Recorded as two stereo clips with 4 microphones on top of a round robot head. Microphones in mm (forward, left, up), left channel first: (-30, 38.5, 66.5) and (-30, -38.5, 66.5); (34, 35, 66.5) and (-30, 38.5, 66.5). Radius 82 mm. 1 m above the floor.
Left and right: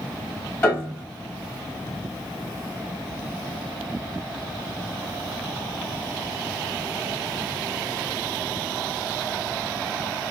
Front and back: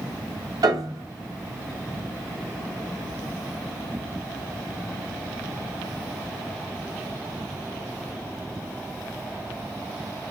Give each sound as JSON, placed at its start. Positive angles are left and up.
{"t": 0.6, "sound": "a piano", "azimuth_deg": 155, "distance_m": 3.0}